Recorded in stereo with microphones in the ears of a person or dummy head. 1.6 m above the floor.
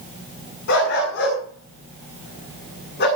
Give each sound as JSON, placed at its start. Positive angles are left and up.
{"t": 0.7, "sound": "a dog barking", "side_deg": 65, "distance_m": 8.0}